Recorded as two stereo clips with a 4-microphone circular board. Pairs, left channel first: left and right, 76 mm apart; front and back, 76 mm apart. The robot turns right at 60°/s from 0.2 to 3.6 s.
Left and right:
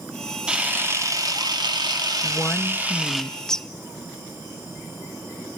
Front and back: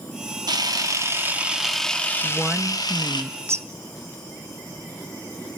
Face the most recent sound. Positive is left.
turn(degrees=170)